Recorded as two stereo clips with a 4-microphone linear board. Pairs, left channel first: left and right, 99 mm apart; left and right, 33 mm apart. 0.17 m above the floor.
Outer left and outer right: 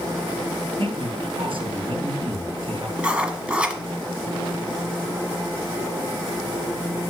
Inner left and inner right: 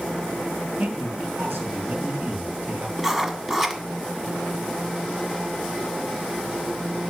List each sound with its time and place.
0.8 s a man speaking: 70° right (ahead or behind), 4 m
3.0 s writing: 10° right (ahead or behind), 1.3 m